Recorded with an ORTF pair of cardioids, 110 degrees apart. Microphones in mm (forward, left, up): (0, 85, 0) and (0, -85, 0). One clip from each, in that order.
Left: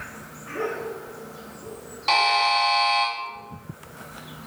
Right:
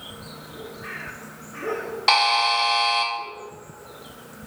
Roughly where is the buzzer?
Ahead right.